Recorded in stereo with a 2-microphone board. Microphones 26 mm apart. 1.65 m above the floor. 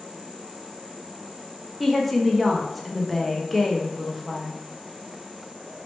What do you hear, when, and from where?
1.8 s a woman speaking: centre (ahead or behind), 0.6 m